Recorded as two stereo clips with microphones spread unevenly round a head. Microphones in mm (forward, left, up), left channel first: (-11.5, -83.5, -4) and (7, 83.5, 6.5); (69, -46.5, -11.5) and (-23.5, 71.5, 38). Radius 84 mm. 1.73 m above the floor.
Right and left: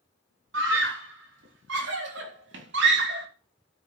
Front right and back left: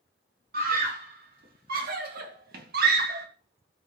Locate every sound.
0.5 s a scream: 100° left, 6 m; by 3.3 s 110° left, 2.5 m